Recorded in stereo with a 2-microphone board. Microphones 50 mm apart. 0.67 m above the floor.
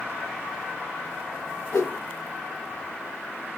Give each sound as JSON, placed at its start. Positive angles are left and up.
{"t": 1.7, "sound": "a whoosh", "side_deg": 75, "distance_m": 1.0}